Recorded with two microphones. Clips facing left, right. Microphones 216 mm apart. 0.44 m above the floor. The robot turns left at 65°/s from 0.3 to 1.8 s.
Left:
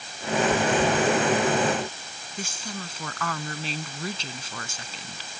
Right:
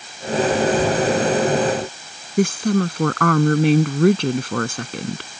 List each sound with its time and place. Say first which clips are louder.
2.4 s a woman speaking: right 19 dB; 65° right (ahead or behind)